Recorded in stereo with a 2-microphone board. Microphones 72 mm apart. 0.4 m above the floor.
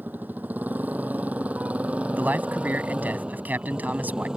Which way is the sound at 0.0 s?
25° right (ahead or behind).